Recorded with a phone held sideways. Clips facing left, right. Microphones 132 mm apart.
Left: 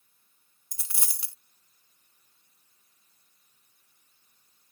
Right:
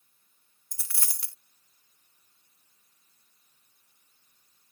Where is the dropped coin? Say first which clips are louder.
Left 1 dB; 20° left (ahead or behind).